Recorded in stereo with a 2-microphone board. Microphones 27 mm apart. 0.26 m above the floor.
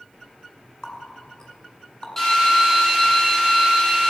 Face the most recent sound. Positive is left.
turn(degrees=15)  # may be behind; listen again after turning